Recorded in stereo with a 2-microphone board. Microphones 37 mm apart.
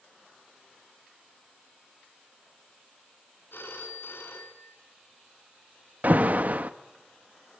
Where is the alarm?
50° right (ahead or behind), 1.2 m.